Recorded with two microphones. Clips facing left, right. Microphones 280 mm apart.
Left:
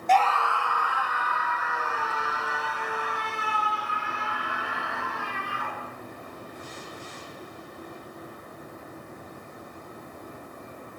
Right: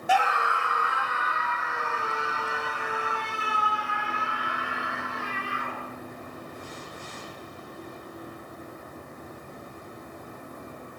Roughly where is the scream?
Centre.